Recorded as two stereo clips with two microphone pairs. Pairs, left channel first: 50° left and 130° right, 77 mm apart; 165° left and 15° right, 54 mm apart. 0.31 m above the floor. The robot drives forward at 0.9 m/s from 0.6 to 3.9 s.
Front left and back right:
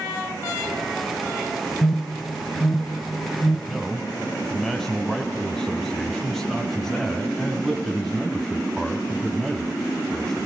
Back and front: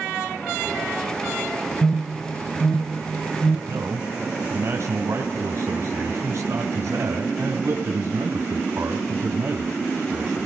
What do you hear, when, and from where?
1.8 s an alarm: 85° left, 2 m; by 3.6 s 135° left, 2.5 m
3.7 s a man speaking: 40° right, 3 m